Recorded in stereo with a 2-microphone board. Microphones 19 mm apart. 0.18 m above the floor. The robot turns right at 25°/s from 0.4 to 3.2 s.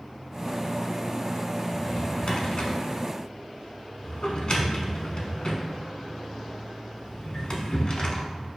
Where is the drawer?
45° left (ahead or behind), 0.7 m; by 8.3 s 50° left (ahead or behind), 0.7 m.